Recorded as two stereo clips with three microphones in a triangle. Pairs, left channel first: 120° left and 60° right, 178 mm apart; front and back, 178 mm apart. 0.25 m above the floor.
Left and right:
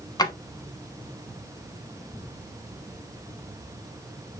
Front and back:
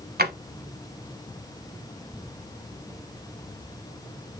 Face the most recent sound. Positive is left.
turn(degrees=-175)